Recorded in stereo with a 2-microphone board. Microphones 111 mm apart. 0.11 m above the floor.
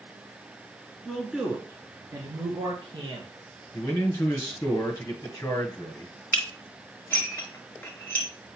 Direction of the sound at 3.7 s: 25° left (ahead or behind).